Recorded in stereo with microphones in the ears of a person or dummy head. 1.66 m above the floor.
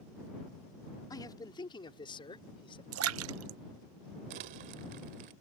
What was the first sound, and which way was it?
A man speaking, 15° left (ahead or behind).